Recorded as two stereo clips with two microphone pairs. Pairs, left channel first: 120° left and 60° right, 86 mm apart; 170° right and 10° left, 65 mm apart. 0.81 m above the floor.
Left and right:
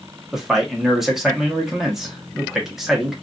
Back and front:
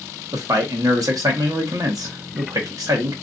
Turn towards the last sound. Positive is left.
turn(degrees=25)